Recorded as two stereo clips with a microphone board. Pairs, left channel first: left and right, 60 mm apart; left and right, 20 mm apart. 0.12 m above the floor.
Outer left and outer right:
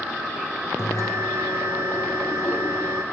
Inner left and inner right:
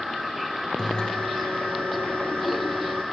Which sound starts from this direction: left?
A bell, at 0.8 s.